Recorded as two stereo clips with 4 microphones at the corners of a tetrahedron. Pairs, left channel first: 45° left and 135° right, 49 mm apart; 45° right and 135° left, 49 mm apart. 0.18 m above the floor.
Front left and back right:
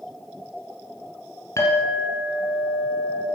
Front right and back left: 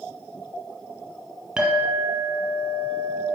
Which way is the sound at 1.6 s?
60° left.